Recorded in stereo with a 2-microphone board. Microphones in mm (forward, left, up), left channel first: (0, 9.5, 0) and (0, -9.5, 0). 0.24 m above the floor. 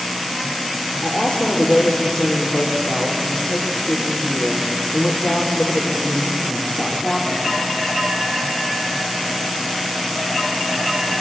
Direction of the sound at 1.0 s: 50° left (ahead or behind).